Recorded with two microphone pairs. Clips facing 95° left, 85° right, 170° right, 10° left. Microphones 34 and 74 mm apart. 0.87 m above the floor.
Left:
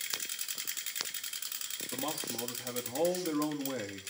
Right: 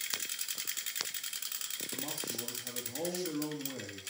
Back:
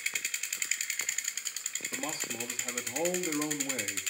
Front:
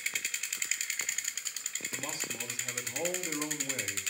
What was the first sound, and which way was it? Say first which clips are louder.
A man speaking: left 5 dB, back 3 dB; 140° left.